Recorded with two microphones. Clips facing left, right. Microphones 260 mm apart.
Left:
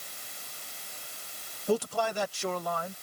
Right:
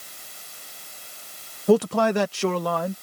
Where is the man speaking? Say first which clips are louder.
Right 10 dB; 70° right (ahead or behind); by 2.9 s 75° right (ahead or behind).